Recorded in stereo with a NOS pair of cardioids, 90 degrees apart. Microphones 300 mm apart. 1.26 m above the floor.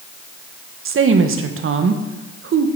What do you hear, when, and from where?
0.8 s a woman speaking: 45° right, 1.3 m